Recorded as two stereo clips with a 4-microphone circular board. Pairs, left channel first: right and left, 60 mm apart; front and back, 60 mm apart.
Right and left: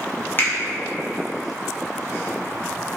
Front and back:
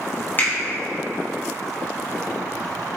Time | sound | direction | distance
0.4 | a finger snap | 45° right | 0.9 m